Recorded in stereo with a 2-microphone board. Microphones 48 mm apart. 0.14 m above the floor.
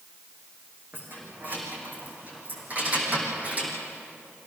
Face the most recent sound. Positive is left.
turn(degrees=-30)  # may be behind; listen again after turning